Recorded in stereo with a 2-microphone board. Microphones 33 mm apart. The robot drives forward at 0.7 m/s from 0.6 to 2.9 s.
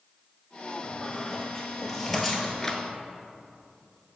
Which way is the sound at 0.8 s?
5° left (ahead or behind).